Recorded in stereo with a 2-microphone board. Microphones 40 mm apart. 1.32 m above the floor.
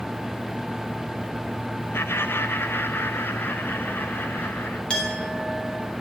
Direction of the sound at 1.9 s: 75° left (ahead or behind).